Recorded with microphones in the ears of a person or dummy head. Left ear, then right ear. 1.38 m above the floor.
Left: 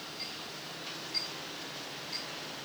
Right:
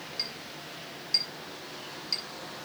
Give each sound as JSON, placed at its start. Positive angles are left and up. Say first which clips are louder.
{"t": 0.2, "sound": "a clink", "louder": "right 6 dB", "side_deg": -65, "distance_m": 3.5}